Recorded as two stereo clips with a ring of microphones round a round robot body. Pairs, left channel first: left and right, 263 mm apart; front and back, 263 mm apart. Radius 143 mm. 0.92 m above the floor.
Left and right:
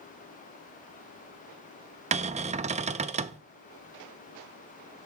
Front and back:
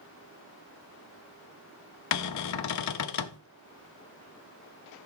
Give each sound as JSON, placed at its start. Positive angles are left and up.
{"t": 2.1, "sound": "a cupboard door", "azimuth_deg": -25, "distance_m": 0.5}